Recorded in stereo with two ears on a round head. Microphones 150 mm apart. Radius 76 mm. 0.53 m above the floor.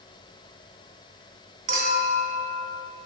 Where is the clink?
55° right (ahead or behind), 3 m.